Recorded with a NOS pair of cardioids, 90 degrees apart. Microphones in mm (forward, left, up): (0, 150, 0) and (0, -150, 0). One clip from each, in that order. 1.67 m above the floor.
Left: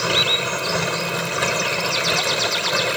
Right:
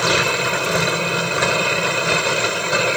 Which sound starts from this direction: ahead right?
A machine running, at 0.0 s.